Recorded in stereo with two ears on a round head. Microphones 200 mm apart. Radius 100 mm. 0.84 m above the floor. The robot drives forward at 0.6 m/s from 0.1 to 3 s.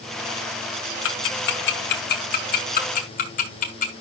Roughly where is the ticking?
Left.